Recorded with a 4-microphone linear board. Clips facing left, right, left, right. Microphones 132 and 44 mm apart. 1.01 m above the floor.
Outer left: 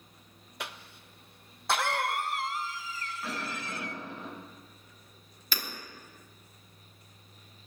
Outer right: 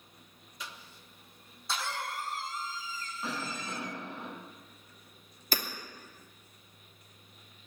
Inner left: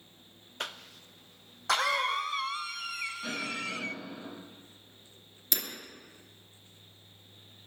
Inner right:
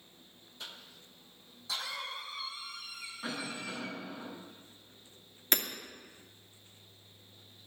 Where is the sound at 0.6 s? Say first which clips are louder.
Outer left 5 dB, inner left 9 dB; 65° left (ahead or behind), 0.7 m.